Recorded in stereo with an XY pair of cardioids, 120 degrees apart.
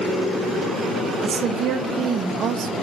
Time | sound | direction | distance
1.2 | a woman speaking | 50° right | 1.1 m